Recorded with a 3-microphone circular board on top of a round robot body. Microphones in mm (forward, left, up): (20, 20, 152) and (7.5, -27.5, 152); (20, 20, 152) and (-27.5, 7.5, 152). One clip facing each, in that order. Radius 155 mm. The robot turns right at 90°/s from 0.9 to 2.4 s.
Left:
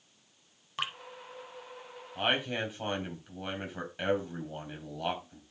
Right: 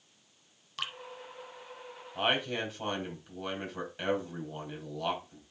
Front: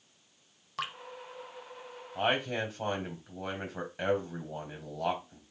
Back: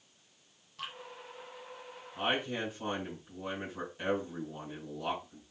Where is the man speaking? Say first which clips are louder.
Even, front 3 dB; 25° right, 3.5 m; by 5.4 s 5° right, 3.5 m.